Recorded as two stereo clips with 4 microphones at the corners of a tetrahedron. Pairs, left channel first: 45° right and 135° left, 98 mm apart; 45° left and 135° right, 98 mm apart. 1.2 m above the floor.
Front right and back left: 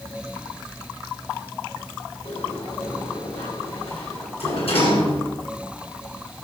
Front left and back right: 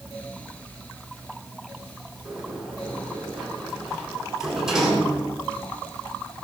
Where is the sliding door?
50° right, 8.5 m.